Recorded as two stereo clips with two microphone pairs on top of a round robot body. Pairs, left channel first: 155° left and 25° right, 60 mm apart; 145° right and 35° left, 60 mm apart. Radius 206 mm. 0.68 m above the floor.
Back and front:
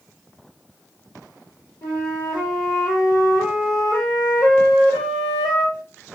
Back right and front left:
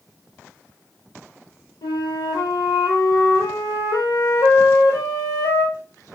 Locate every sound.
1.8 s a flute: 165° right, 0.6 m